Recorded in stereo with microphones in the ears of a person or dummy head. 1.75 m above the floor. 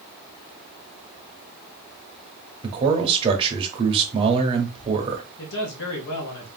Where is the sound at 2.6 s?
30° right (ahead or behind), 1.0 m.